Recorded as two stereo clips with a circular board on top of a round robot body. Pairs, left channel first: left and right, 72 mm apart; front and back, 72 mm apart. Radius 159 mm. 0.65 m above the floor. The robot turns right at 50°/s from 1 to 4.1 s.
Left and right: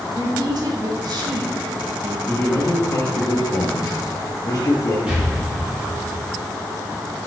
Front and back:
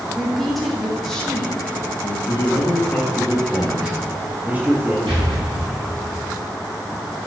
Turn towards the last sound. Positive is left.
turn(degrees=-165)